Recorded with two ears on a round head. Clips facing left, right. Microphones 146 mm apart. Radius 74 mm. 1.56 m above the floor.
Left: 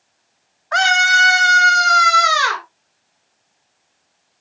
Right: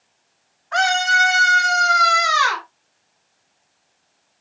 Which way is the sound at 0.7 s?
60° left (ahead or behind).